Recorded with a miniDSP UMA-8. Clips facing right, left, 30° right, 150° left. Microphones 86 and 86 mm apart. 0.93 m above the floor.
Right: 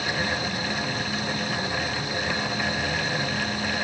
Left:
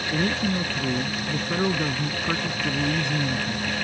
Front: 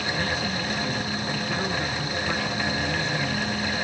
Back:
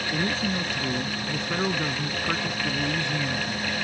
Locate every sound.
0.1 s a man speaking: 90° left; by 3.8 s 75° left